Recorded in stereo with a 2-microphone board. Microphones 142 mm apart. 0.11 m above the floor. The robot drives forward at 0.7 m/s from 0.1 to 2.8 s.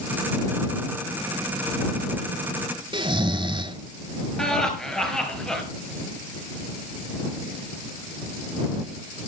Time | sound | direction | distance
2.9 | snoring | 35° right (ahead or behind) | 0.7 m
4.4 | laughter | 5° left (ahead or behind) | 2.5 m